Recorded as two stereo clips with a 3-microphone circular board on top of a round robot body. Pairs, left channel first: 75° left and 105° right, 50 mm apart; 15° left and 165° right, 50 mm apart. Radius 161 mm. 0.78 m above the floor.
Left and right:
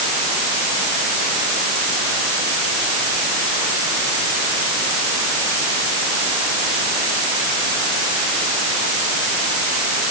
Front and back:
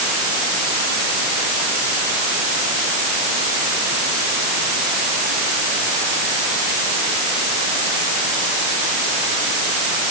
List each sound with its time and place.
Only background noise.